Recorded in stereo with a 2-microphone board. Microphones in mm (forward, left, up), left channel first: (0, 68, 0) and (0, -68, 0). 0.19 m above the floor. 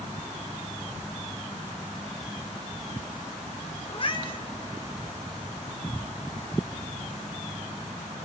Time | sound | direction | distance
3.9 | a cat meowing | 40° left (ahead or behind) | 0.6 m